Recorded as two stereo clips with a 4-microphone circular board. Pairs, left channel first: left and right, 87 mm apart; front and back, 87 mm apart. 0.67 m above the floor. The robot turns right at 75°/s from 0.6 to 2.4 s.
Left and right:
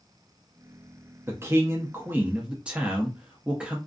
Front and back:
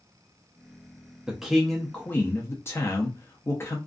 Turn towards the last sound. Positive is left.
turn(degrees=-25)